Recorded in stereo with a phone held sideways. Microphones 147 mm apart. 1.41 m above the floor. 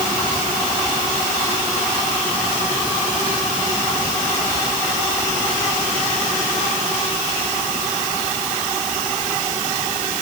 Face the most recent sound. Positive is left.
No sound to turn to.